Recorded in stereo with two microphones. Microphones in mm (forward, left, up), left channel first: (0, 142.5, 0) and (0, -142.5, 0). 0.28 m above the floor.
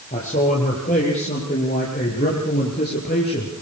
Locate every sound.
0.1 s a man speaking: 35° left (ahead or behind), 7.5 m